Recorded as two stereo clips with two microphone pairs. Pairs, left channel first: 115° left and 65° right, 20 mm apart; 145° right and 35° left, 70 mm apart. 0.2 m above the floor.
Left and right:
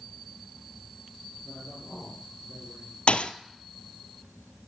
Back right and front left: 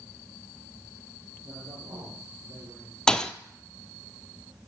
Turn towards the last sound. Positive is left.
turn(degrees=135)